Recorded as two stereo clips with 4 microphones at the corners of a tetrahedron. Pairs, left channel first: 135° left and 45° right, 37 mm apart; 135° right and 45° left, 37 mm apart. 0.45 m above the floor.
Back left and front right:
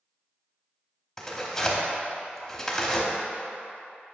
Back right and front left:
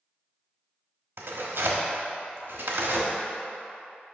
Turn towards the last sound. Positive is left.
turn(degrees=60)